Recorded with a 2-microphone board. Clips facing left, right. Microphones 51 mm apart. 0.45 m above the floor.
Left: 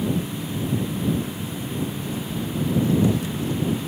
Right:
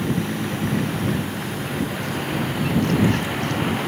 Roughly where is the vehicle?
Right.